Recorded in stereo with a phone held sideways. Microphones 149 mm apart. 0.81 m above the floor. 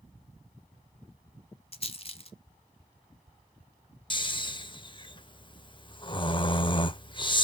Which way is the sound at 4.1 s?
30° left (ahead or behind).